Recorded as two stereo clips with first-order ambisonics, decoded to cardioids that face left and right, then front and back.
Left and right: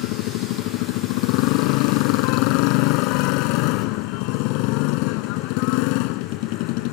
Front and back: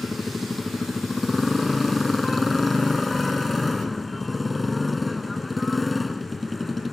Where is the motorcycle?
80° left.